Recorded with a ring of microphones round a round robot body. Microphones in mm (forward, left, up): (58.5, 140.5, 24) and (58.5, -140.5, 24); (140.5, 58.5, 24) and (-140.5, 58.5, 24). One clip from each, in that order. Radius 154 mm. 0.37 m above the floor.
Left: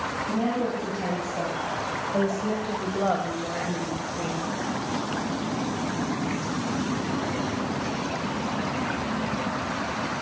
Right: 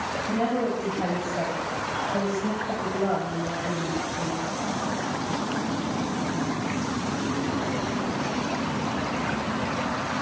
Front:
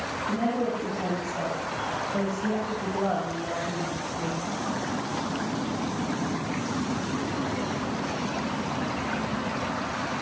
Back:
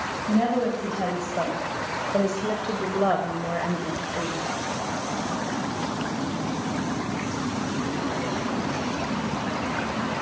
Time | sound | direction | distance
0.3 | a woman speaking | 160° right | 3 m